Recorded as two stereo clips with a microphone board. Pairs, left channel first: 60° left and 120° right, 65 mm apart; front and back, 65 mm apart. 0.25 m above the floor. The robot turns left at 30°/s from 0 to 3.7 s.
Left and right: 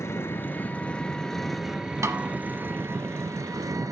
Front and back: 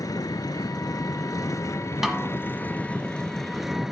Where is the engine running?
15° left, 1.0 m; by 3.9 s 95° right, 1.0 m.